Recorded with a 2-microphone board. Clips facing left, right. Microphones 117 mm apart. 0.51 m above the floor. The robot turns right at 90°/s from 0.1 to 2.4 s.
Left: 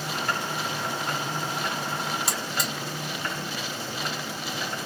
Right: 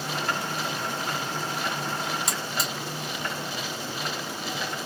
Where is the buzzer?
Centre (ahead or behind), 1.2 m; by 2.7 s 5° right (ahead or behind), 1.2 m.